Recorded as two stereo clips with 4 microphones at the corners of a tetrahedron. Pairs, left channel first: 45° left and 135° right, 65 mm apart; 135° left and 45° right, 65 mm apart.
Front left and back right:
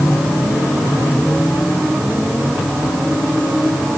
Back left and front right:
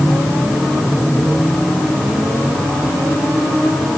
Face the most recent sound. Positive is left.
No sound to turn to.